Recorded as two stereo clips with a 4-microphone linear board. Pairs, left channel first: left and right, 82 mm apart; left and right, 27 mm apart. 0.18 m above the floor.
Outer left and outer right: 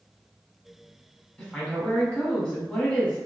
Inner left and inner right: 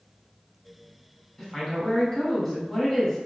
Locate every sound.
1.4 s a woman speaking: 10° left (ahead or behind), 1.0 m